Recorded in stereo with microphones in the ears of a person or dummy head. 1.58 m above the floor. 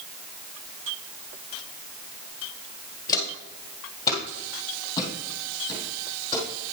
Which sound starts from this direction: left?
Footsteps, at 3.1 s.